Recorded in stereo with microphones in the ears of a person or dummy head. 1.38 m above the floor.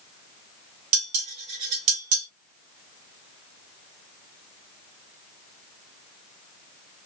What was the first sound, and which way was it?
Dishes clattering, 40° right (ahead or behind).